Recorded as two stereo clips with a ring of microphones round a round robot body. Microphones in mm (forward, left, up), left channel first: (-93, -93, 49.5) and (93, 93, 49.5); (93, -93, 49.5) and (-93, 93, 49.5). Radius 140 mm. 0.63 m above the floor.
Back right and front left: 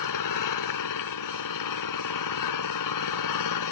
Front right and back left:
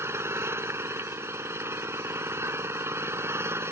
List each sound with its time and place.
0.0 s an engine running: 145° right